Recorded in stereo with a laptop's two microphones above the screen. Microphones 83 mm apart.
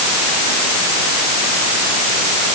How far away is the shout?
I don't hear a shout.